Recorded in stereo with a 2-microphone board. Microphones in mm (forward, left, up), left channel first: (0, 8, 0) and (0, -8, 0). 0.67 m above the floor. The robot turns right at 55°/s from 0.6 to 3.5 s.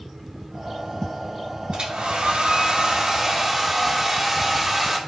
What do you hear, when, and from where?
1.7 s a hair dryer: 105° right, 1.0 m; by 5.0 s 5° right, 1.0 m